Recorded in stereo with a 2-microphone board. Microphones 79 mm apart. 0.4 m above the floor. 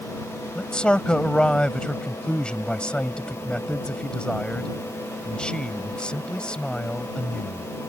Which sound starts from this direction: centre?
A man speaking, at 0.6 s.